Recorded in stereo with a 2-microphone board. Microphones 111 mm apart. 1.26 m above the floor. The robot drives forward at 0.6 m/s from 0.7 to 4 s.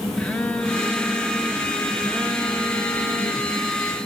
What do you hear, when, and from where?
0.2 s a phone buzzing: 10° left (ahead or behind), 2.5 m; by 3.6 s 25° left (ahead or behind), 1.1 m